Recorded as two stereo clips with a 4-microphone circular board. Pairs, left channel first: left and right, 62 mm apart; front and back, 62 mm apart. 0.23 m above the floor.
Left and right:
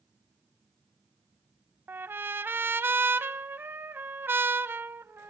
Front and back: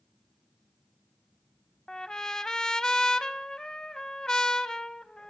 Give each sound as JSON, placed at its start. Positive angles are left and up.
{"t": 1.9, "sound": "a trumpet", "azimuth_deg": -70, "distance_m": 0.5}